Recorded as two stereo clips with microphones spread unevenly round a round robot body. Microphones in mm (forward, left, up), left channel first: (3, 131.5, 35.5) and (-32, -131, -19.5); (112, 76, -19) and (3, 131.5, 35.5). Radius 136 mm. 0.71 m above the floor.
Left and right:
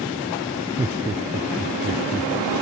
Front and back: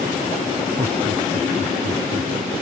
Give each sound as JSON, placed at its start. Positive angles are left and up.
{"t": 0.8, "sound": "laughter", "azimuth_deg": -175}